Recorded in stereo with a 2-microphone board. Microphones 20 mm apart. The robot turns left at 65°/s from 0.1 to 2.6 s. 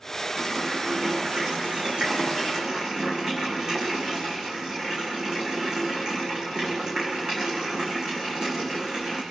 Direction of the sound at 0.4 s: 5° left.